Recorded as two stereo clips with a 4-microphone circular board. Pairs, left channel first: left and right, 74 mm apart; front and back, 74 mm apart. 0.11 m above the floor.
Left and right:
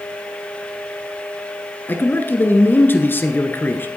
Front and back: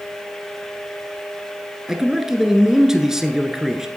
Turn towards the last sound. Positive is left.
turn(degrees=105)